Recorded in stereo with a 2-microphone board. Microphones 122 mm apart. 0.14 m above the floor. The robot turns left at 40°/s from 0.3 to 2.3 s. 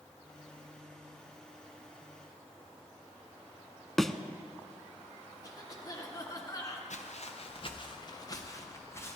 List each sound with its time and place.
4.0 s a thud: 5° left (ahead or behind), 0.5 m
5.4 s a cough: 30° left (ahead or behind), 1.8 m
6.9 s footsteps: 70° left (ahead or behind), 1.4 m; by 9.2 s 20° left (ahead or behind), 3 m